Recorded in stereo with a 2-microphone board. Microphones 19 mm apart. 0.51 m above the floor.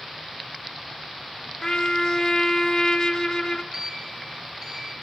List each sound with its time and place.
1.6 s a trumpet: 25° left (ahead or behind), 1.7 m
3.7 s a sliding door: 55° right (ahead or behind), 5 m